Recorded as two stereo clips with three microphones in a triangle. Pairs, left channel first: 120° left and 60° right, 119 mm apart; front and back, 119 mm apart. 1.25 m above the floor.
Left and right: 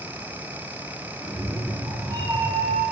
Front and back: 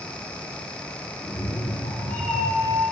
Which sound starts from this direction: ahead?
A cat meowing, at 1.2 s.